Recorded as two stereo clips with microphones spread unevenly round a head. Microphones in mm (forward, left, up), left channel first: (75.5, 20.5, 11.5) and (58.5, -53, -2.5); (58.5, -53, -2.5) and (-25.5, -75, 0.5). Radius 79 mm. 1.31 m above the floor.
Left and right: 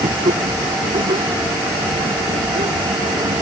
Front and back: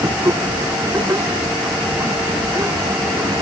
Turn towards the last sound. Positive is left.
turn(degrees=-105)